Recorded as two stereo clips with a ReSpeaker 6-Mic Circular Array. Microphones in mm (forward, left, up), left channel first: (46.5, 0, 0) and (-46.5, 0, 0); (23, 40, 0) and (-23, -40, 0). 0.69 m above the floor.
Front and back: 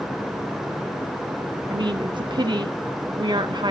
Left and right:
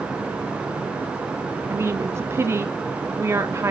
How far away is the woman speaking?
About 1.3 m.